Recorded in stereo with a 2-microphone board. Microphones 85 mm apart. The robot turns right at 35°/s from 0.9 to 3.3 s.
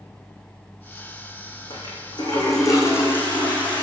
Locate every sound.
1.7 s a toilet flushing: 105° left, 4 m; by 3.8 s 160° left, 4 m